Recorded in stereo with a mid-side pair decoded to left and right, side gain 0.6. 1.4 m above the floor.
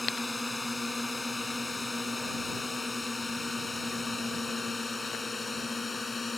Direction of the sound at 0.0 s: 20° left.